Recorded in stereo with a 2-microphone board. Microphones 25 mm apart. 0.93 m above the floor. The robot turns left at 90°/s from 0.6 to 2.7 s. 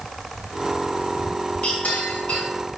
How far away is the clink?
About 4.5 m.